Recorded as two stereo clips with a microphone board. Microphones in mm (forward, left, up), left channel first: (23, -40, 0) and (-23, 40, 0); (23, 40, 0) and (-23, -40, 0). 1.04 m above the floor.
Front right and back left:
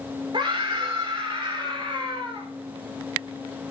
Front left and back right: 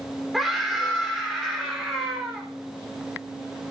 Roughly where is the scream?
Behind left.